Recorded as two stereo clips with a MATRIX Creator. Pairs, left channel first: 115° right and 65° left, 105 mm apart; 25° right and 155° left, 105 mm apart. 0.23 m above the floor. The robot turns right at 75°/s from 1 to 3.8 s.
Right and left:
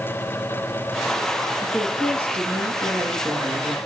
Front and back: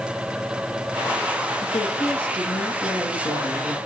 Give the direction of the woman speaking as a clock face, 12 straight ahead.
12 o'clock.